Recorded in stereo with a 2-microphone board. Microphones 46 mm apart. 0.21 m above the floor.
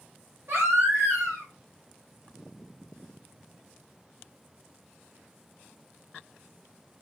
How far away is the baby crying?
About 2.5 m.